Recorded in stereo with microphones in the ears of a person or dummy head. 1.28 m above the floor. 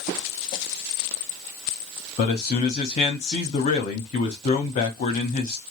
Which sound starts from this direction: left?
A man speaking, at 2.2 s.